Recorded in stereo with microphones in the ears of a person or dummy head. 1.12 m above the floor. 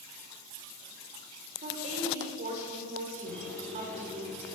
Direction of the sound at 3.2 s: 5° left (ahead or behind).